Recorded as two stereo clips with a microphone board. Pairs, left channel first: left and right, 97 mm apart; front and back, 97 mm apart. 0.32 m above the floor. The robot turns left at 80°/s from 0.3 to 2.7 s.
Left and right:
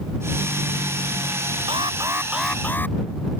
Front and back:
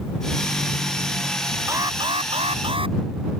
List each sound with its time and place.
1.7 s an alarm: 120° right; by 3.0 s 160° left